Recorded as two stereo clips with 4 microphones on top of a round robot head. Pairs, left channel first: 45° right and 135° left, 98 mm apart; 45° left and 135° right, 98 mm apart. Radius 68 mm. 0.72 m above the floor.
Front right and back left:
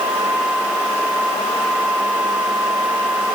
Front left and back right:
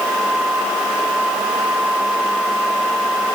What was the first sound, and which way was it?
Only background noise.